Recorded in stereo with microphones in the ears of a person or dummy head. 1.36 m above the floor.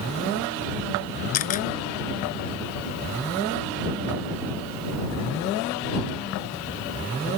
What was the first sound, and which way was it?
A camera shutter, 45° left (ahead or behind).